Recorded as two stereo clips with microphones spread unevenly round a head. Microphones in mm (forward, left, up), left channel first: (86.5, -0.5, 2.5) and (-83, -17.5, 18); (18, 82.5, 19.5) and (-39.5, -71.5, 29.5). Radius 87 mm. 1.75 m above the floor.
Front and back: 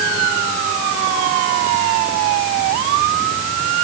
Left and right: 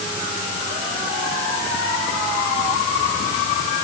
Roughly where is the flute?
No flute in this recording.